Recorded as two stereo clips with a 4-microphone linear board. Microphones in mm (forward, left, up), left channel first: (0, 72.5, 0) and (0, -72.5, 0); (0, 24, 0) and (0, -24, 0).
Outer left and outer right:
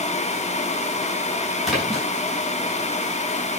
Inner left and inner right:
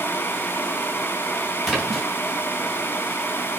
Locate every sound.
1.6 s a splash: centre (ahead or behind), 6 m